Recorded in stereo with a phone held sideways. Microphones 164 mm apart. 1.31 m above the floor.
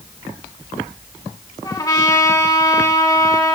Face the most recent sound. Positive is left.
turn(degrees=25)  # may be behind; listen again after turning